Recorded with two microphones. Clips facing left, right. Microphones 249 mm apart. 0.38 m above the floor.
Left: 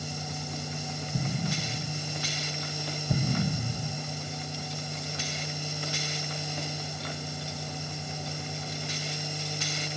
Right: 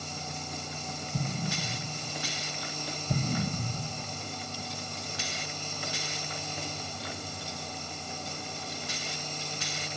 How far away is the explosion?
About 1.2 m.